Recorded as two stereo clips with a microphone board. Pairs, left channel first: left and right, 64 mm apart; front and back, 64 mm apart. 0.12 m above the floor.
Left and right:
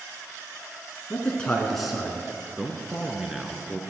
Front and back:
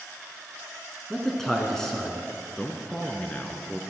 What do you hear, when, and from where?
1.1 s a man speaking: 75° left, 1.7 m; by 2.5 s 65° right, 1.6 m
2.6 s a man speaking: 15° right, 1.1 m